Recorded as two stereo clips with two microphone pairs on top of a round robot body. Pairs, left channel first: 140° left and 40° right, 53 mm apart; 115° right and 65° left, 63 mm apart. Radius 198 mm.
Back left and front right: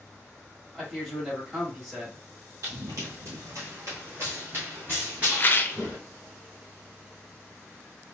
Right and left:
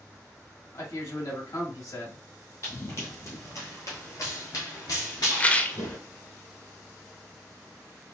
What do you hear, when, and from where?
0.7 s a man speaking: 105° right, 1.9 m
2.6 s running footsteps: 65° right, 1.8 m; by 6.0 s 160° right, 0.7 m
5.3 s a rattle: 175° right, 0.7 m